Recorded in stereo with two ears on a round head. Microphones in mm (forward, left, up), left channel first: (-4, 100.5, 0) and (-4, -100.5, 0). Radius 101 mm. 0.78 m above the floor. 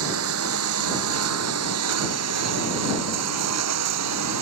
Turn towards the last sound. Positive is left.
turn(degrees=-80)